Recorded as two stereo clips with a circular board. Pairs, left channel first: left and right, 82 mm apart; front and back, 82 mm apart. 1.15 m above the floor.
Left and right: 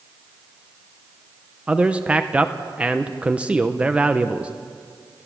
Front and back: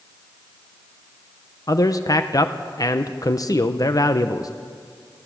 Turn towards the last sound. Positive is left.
turn(degrees=-20)